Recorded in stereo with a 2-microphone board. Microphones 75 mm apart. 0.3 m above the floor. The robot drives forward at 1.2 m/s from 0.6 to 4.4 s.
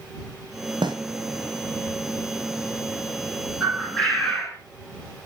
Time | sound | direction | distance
0.8 | a snare drum | 80° right | 2.5 m
3.6 | a bird | 5° left (ahead or behind) | 9 m